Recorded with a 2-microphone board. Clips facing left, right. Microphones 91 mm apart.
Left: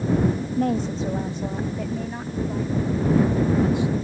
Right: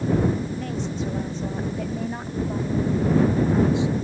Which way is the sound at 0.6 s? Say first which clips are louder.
Left 5 dB; 50° left (ahead or behind).